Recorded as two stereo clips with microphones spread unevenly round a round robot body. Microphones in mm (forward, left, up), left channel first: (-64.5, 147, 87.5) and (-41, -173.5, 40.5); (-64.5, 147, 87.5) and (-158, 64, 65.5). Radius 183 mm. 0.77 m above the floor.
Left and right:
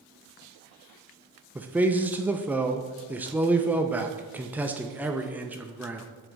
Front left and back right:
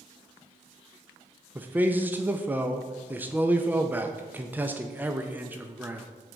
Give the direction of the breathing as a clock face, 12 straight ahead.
I don't hear breathing.